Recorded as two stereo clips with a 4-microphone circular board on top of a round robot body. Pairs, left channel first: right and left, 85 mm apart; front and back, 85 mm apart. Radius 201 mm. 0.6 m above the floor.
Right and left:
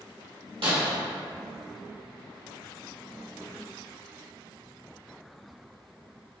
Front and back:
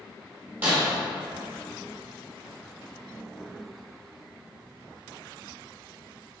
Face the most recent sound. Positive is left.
turn(degrees=110)